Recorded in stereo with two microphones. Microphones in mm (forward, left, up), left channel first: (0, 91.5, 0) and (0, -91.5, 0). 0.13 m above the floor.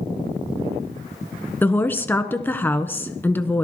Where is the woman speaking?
10° left (ahead or behind), 1.1 m.